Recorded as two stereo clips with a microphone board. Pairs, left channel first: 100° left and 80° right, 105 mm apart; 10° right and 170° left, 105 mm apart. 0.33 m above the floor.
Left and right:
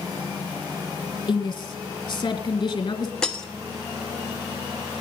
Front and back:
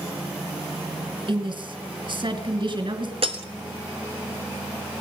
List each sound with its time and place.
1.3 s a woman speaking: 140° left, 2.5 m
3.2 s breaking glass: straight behind, 1.1 m